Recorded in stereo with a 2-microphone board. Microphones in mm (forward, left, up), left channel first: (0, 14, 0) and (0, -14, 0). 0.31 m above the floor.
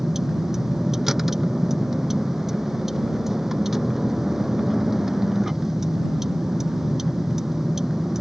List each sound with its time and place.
0.0 s a vehicle: 10° right (ahead or behind)